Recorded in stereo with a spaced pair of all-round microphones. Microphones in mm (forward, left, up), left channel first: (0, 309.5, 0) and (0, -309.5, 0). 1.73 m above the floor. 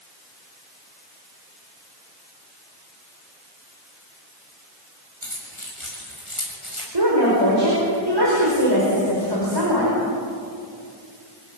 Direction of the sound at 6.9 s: 40° right (ahead or behind).